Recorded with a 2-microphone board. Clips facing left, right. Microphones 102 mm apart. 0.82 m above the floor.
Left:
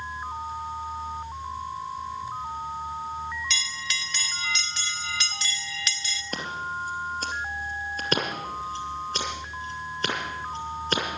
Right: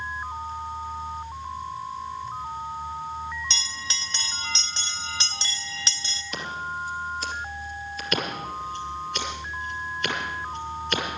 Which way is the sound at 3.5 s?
30° right (ahead or behind).